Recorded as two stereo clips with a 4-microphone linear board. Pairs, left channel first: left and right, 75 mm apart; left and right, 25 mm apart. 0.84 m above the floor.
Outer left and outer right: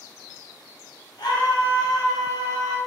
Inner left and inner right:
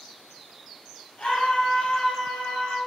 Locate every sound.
1.2 s a scream: 70° left (ahead or behind), 1.6 m